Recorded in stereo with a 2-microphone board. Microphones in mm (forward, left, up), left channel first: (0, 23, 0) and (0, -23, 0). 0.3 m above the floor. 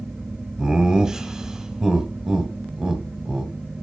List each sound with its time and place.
0.6 s laughter: 15° right (ahead or behind), 1.1 m